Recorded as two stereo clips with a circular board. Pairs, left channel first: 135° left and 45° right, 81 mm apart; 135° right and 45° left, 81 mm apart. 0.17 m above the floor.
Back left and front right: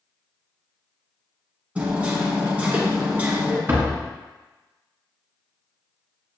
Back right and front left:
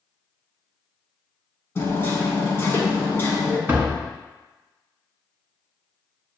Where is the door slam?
Straight ahead, 1.1 m.